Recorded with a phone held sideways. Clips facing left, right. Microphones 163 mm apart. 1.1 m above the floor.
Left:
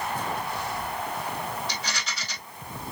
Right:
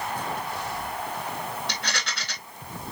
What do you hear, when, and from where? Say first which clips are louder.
1.7 s a rattle: right 1 dB; 70° right (ahead or behind), 2 m